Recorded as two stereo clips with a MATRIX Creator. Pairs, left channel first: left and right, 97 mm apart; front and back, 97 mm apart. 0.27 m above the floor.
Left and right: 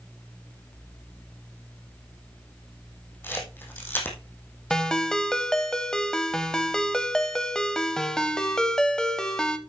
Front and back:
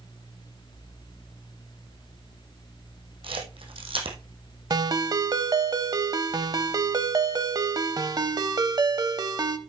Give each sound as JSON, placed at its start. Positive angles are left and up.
{"t": 3.2, "sound": "a camera shutter", "azimuth_deg": 155, "distance_m": 2.5}
{"t": 4.7, "sound": "a ringtone", "azimuth_deg": 170, "distance_m": 0.8}